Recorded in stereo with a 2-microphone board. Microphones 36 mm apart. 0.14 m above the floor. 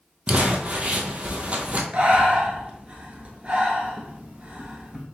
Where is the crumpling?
35° right (ahead or behind), 0.8 m.